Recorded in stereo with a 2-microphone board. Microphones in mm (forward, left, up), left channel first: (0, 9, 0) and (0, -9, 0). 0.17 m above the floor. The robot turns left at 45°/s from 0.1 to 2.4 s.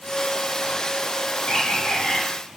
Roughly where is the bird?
Behind left.